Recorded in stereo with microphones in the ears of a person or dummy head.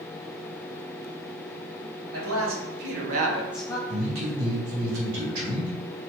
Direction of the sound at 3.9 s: 85° right.